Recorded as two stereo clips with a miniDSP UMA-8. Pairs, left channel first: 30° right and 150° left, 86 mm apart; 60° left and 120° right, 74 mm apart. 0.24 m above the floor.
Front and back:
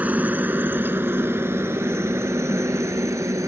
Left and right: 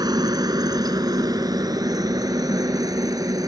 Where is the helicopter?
140° right; by 3.5 s 155° right.